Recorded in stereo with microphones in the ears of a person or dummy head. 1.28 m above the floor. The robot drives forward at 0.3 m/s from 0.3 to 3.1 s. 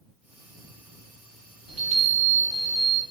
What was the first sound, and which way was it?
A chime, 30° right (ahead or behind).